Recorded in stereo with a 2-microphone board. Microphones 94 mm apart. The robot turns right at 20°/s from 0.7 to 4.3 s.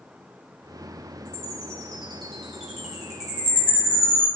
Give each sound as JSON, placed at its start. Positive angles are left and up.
{"t": 1.2, "sound": "a chime", "side_deg": 15, "distance_m": 1.5}